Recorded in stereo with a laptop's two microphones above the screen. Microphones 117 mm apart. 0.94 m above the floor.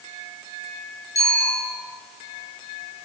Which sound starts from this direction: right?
A bicycle bell, at 1.1 s.